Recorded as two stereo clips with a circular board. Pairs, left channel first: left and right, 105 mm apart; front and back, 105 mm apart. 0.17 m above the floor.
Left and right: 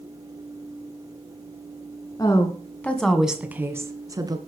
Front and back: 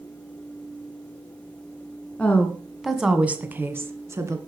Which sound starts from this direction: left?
A woman speaking, at 2.2 s.